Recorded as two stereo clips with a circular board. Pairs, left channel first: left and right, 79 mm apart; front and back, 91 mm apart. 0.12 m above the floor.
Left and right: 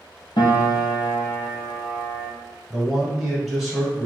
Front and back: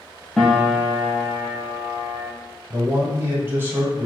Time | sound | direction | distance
0.4 | a piano | 85° left | 0.8 m
2.7 | a man speaking | 175° right | 1.1 m